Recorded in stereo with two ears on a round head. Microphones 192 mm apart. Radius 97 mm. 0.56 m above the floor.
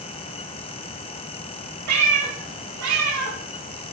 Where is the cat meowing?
85° right, 4 m.